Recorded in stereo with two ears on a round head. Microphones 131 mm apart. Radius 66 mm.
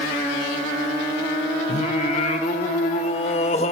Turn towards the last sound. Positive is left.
turn(degrees=45)  # may be behind; listen again after turning